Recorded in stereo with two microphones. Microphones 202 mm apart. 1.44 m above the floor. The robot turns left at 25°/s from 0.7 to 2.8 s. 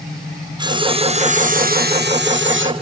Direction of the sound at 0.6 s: 20° right.